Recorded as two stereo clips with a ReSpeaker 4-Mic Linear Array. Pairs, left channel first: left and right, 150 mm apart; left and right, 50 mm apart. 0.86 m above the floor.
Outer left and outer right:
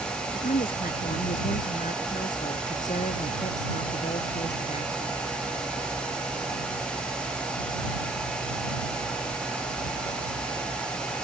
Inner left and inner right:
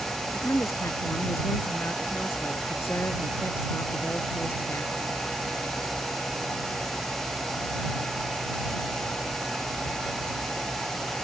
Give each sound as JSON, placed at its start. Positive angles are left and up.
{"t": 0.3, "sound": "a woman speaking", "side_deg": 75}